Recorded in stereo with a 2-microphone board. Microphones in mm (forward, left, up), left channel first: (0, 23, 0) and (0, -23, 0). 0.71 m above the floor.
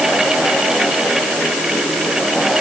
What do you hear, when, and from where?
Only background noise.